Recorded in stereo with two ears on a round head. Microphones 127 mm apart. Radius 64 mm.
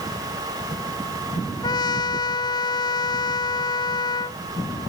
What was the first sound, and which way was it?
A trumpet, 30° left (ahead or behind).